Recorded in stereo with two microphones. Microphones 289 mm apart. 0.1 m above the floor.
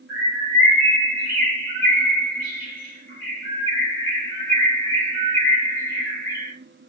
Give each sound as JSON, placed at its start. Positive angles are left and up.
{"t": 0.1, "sound": "a bird", "side_deg": 40, "distance_m": 2.5}